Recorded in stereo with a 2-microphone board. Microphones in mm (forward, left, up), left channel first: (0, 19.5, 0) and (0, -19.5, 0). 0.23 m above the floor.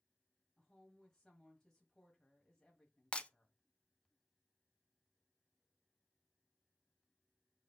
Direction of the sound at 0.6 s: 10° left (ahead or behind).